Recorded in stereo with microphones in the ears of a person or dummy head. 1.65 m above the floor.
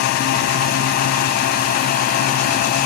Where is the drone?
55° left (ahead or behind); by 2.9 s 50° left (ahead or behind).